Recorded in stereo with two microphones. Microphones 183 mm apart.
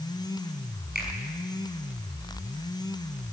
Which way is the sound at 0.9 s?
60° right (ahead or behind).